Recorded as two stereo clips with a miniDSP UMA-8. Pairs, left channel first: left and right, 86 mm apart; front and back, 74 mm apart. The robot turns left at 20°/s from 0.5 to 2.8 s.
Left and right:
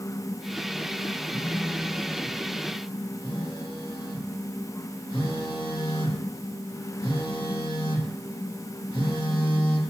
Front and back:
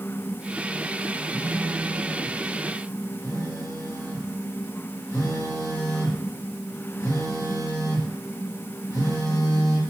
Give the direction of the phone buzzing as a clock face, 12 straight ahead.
10 o'clock.